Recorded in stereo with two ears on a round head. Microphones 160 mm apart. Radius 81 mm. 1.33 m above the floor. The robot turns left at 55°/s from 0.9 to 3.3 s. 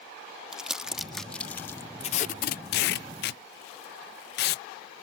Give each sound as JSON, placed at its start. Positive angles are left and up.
{"t": 0.5, "sound": "crumpling", "side_deg": -5}
{"t": 2.0, "sound": "tape being pulled", "side_deg": 35}